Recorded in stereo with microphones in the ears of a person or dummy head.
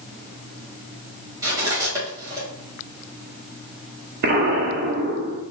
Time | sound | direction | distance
1.4 | cutlery clinking | 20° right (ahead or behind) | 2 m
4.2 | an explosion | 45° right (ahead or behind) | 0.7 m